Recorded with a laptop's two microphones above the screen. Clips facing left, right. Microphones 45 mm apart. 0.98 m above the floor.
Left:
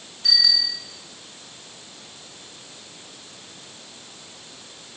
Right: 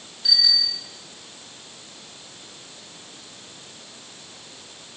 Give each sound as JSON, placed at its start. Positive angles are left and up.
{"t": 0.2, "sound": "a bicycle bell", "side_deg": 55, "distance_m": 7.5}